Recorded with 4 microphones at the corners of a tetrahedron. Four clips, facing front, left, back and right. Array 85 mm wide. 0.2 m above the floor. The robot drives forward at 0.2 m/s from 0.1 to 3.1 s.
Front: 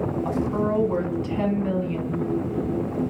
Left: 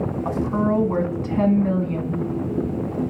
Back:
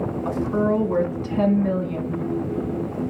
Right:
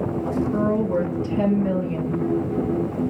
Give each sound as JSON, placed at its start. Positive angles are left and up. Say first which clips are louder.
{"t": 0.2, "sound": "a woman speaking", "louder": "even, back 5 dB", "azimuth_deg": 115, "distance_m": 1.3}